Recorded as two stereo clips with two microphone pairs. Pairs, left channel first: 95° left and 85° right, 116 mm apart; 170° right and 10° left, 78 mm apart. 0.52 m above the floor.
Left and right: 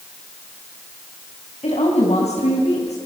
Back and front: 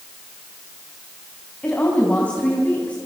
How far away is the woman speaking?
About 4 m.